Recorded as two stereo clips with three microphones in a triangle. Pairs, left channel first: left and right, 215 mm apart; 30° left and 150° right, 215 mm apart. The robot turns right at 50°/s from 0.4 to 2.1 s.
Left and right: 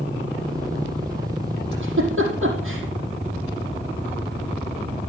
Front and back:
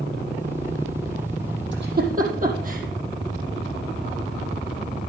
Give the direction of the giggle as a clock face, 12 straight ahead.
4 o'clock.